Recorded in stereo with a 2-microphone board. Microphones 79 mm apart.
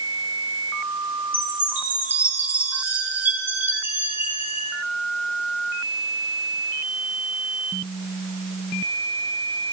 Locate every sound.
1.3 s a chime: 25° right (ahead or behind), 5 m